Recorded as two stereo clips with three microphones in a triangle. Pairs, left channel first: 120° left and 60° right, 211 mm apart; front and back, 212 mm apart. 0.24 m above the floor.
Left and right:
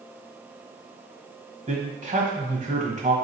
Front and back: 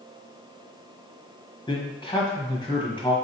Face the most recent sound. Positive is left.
turn(degrees=-45)